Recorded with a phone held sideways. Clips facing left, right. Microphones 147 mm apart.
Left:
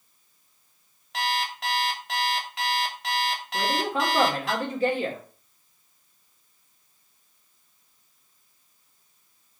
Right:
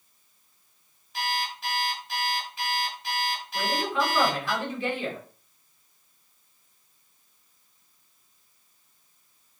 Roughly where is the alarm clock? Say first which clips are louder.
Left 3 dB; left.